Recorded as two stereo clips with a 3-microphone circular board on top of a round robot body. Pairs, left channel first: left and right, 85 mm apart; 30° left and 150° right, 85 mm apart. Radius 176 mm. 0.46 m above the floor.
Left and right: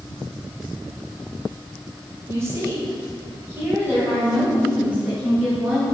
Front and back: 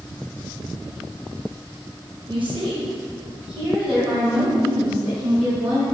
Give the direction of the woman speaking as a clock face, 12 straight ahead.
5 o'clock.